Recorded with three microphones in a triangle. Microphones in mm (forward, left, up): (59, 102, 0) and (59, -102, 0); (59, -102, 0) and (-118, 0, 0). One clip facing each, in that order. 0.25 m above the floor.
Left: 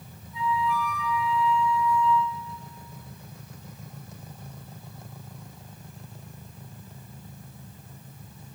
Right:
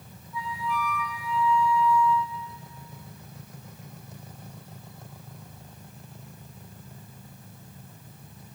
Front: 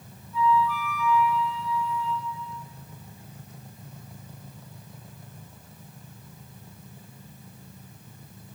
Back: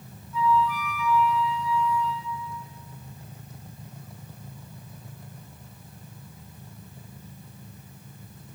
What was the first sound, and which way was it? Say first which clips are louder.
A flute: left 5 dB, even; 150° left.